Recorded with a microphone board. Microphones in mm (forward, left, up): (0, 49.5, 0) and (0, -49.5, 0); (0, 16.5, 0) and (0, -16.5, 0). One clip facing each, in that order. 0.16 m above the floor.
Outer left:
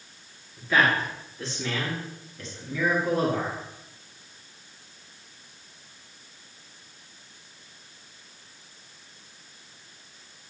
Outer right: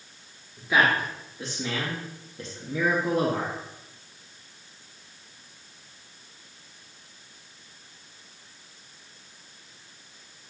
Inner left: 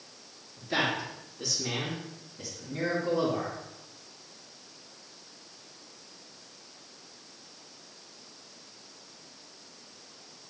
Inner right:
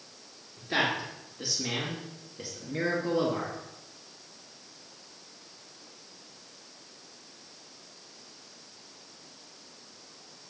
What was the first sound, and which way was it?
A man speaking, 15° right (ahead or behind).